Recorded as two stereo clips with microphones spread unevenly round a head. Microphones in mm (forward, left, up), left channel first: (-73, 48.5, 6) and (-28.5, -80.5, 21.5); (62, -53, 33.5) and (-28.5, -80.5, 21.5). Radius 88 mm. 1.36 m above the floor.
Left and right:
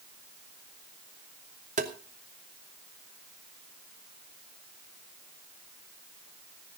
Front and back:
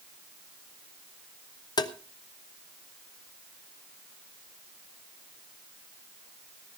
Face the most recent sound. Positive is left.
turn(degrees=-25)